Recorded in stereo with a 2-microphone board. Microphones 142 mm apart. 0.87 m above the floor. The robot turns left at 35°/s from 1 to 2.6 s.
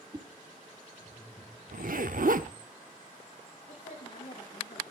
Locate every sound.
0.1 s a whoosh: 30° right (ahead or behind), 2.5 m
1.7 s a zipper: 70° right (ahead or behind), 0.9 m
3.7 s a woman speaking: 55° left (ahead or behind), 5.5 m